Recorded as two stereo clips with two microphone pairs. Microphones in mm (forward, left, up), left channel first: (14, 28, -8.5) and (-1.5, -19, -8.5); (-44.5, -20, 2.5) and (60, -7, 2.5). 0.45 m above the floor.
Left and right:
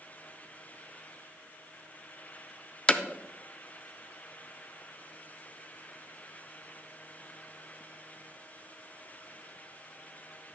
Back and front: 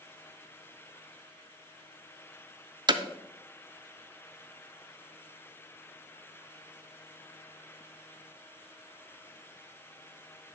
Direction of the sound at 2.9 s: 10° left.